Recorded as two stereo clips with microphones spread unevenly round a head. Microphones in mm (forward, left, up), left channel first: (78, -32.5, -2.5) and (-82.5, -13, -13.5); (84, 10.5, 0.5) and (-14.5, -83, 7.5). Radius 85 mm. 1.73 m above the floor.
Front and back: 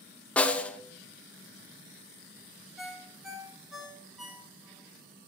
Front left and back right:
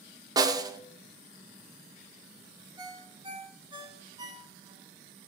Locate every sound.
0.4 s a snare drum: 85° right, 0.7 m
2.8 s a ringtone: 95° right, 1.7 m